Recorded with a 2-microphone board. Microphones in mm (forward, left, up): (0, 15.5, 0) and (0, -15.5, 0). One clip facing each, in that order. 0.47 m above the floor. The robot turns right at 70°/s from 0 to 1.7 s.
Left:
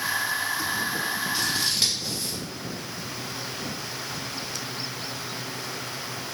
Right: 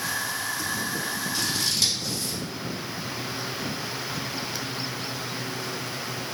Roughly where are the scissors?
Centre.